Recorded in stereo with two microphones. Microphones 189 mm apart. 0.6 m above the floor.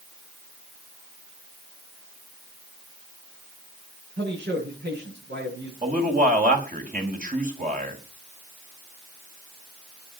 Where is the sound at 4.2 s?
70° right (ahead or behind), 8.5 m.